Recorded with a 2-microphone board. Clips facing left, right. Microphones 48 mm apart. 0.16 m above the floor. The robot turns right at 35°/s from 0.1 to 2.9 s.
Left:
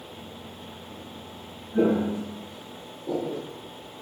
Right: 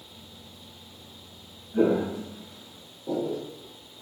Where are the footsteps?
Centre (ahead or behind), 1.9 m.